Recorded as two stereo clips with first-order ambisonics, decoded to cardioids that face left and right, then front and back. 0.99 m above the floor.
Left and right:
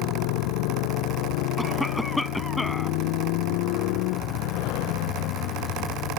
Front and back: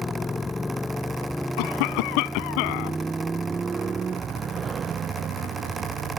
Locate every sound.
0.0 s a motorcycle: 80° left; by 6.2 s 125° left
1.6 s a cough: 5° left